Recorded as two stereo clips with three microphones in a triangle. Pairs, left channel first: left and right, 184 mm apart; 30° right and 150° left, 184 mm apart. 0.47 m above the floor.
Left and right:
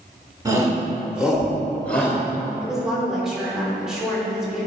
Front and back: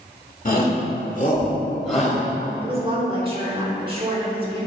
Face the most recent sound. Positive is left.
turn(degrees=-175)